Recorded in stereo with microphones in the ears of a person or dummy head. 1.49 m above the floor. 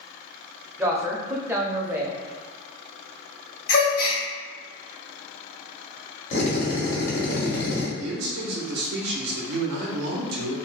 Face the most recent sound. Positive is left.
turn(degrees=-65)  # may be behind; listen again after turning